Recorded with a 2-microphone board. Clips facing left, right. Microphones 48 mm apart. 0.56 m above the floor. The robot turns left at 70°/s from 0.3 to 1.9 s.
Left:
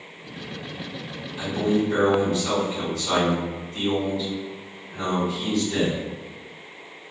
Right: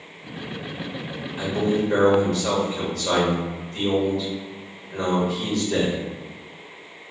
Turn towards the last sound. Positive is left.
turn(degrees=-90)